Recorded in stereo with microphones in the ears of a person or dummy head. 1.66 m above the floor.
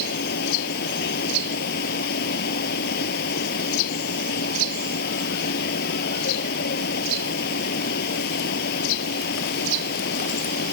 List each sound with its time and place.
0.0 s a fan: 60° left (ahead or behind)